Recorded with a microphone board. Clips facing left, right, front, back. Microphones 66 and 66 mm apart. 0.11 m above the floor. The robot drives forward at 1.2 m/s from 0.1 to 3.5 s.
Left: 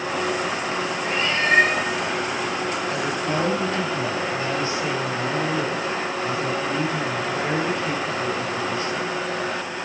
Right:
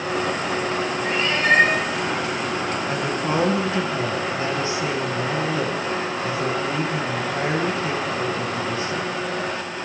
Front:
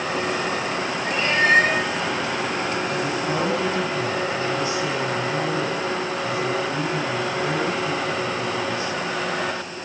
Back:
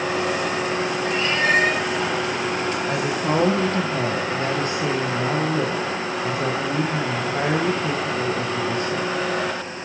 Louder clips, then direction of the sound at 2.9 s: Right 1 dB, back 2 dB; 145° right.